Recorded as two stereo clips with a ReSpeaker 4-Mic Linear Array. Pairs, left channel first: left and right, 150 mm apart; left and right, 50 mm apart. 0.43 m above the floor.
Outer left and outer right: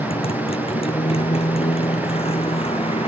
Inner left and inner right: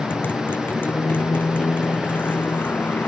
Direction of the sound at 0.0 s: 40° left (ahead or behind).